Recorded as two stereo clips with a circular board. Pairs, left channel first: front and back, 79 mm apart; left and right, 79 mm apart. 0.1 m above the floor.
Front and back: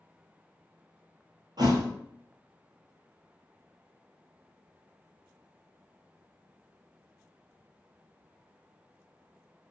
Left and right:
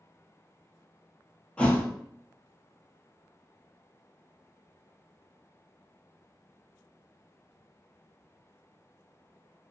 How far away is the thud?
About 0.6 m.